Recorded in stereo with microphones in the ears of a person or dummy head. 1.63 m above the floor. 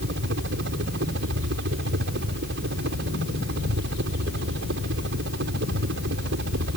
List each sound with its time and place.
0.0 s a helicopter: 70° right (ahead or behind)